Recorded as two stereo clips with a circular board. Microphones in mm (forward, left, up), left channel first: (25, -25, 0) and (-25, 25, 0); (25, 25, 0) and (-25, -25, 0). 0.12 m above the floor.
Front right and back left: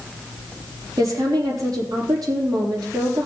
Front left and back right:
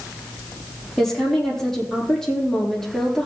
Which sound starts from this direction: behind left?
A woman speaking, at 1.0 s.